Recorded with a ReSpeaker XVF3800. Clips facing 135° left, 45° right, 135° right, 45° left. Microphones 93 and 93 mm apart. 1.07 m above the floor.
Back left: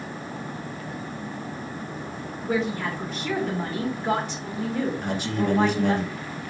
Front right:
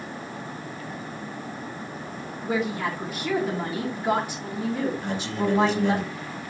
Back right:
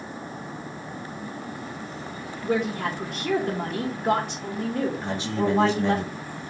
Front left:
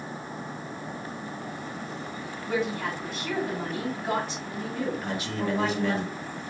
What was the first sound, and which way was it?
A woman speaking, 125° right.